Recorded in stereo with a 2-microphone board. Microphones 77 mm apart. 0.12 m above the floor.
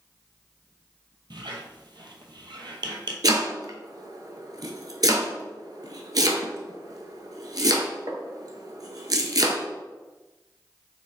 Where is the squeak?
75° right (ahead or behind), 0.6 m.